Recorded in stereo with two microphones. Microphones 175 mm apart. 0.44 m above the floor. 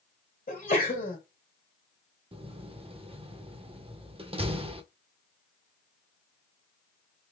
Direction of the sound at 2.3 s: 30° right (ahead or behind).